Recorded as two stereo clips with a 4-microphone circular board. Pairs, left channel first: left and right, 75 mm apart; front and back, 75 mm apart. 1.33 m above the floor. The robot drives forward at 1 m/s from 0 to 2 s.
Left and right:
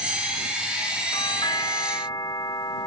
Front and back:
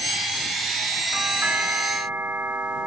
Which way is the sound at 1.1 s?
105° left.